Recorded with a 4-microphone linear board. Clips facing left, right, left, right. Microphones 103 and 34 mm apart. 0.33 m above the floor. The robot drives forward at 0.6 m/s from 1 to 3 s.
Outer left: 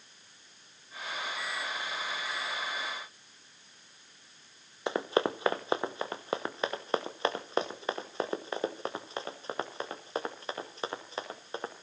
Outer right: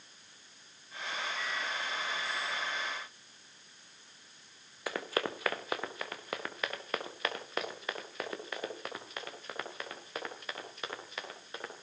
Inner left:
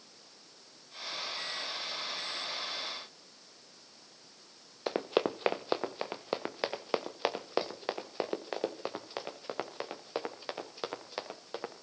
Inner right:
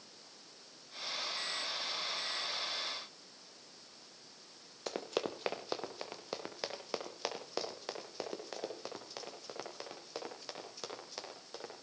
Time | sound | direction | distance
4.9 | running footsteps | 25° left (ahead or behind) | 1.4 m